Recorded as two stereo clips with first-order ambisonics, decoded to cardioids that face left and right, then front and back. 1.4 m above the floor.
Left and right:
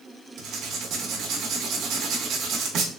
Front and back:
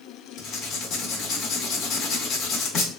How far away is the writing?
About 0.7 m.